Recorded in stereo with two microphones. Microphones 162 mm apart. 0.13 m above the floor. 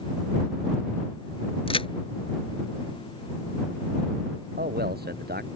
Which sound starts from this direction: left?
A crack, at 1.7 s.